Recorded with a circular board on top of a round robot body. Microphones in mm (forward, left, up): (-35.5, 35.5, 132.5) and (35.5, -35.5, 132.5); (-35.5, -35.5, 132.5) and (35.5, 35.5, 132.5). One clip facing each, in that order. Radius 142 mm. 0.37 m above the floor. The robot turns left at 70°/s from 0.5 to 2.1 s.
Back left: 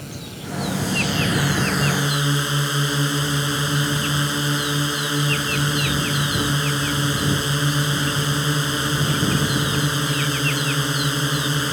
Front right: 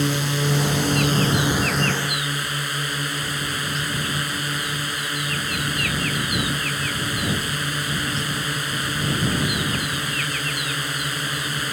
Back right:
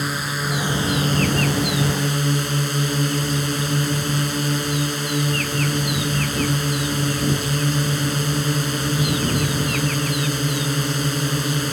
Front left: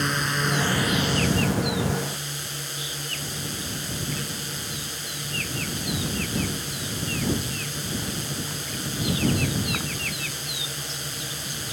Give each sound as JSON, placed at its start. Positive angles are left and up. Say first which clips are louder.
{"t": 0.0, "sound": "a drone", "louder": "front right 12 dB, even", "azimuth_deg": -50}